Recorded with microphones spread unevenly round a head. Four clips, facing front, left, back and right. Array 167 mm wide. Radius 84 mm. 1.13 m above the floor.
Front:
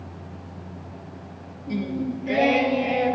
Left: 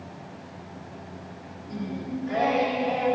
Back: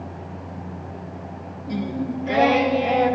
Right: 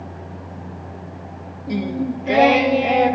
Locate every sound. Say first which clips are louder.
1.7 s singing: right 10 dB, back 1 dB; 85° right, 0.8 m